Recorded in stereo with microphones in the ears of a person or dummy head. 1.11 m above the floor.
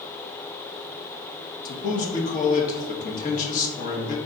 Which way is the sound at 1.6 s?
50° left (ahead or behind).